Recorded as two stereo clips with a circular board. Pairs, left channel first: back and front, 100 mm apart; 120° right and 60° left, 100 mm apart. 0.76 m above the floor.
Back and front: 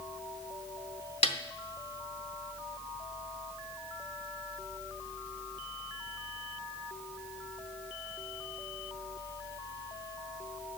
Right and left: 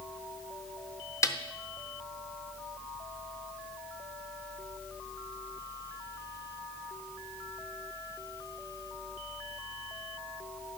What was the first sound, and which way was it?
A snare drum, straight behind.